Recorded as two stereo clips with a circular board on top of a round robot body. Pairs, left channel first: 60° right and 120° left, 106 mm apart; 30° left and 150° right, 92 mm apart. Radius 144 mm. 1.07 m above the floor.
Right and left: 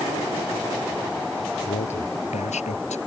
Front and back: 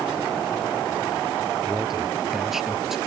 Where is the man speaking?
65° right.